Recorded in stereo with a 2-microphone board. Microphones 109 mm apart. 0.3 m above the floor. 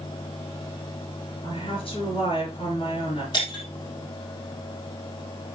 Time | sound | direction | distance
1.4 | a woman speaking | 55° left (ahead or behind) | 4 m
3.3 | breaking glass | 40° left (ahead or behind) | 3.5 m